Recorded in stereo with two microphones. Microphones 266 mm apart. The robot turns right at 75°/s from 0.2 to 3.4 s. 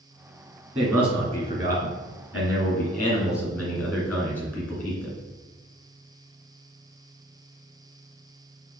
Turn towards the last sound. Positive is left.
turn(degrees=170)